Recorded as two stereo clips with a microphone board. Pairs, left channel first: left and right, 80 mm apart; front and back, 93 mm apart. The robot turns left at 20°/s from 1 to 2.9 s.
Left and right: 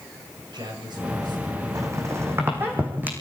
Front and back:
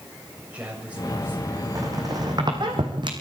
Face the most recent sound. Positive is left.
turn(degrees=-155)